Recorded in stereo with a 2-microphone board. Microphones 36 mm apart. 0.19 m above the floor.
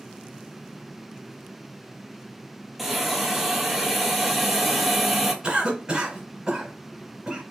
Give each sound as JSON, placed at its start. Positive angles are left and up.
{"t": 2.8, "sound": "a hiss", "side_deg": -5, "distance_m": 0.8}
{"t": 5.4, "sound": "a cough", "side_deg": -20, "distance_m": 1.9}